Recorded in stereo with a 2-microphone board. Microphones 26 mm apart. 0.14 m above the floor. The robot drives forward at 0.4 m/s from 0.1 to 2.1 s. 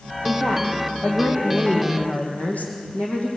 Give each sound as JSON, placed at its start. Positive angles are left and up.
{"t": 0.2, "sound": "a woman speaking", "side_deg": 70, "distance_m": 7.0}